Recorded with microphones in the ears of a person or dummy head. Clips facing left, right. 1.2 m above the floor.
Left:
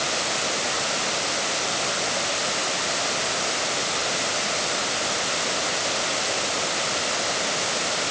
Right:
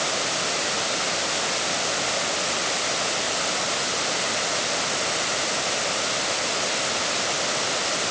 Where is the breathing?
No breathing in this recording.